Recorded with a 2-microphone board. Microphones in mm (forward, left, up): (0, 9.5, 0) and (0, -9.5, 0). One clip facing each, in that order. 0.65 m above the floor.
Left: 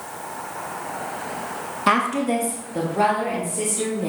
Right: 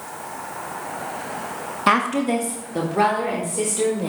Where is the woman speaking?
5° right (ahead or behind), 0.6 m; by 4.1 s 30° right (ahead or behind), 2 m.